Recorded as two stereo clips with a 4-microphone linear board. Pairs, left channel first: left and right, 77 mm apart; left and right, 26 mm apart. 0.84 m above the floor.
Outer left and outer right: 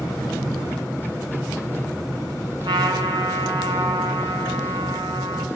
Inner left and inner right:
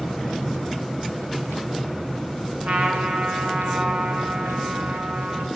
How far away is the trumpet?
About 4 m.